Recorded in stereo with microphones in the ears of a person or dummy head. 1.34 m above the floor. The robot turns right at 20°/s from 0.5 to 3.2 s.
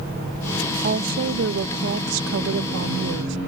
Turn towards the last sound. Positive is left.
turn(degrees=-80)